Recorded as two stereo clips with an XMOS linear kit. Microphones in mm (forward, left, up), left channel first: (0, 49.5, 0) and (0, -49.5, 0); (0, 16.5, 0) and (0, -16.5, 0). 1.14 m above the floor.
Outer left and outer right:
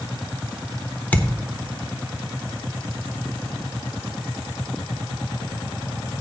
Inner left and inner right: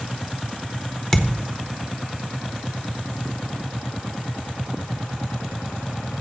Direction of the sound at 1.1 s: 15° left (ahead or behind).